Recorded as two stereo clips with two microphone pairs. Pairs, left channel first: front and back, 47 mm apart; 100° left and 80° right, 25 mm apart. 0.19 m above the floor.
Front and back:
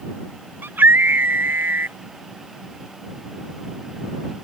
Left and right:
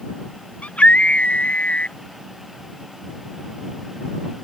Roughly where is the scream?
Behind left.